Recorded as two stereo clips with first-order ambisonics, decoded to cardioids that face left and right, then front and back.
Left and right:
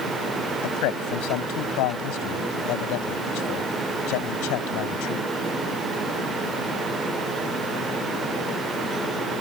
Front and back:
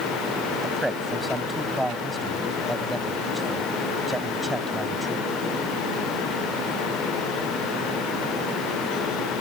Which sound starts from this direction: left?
A man speaking, at 0.6 s.